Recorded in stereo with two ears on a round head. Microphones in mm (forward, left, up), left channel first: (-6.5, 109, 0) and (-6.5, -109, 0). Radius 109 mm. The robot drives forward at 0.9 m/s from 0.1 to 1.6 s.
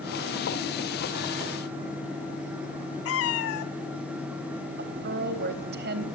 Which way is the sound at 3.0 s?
65° left (ahead or behind).